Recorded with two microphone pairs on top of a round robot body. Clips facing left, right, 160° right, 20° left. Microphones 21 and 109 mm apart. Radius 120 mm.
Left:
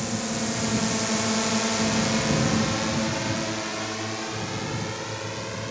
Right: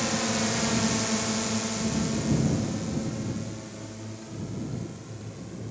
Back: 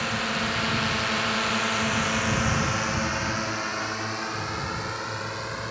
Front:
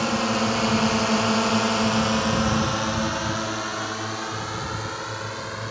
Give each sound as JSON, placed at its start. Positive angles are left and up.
{"t": 0.0, "sound": "a drone", "azimuth_deg": -20}